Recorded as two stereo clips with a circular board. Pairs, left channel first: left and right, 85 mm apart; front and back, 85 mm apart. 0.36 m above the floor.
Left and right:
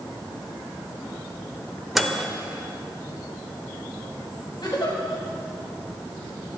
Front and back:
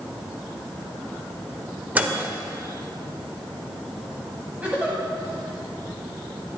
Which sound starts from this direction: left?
A giggle, at 4.6 s.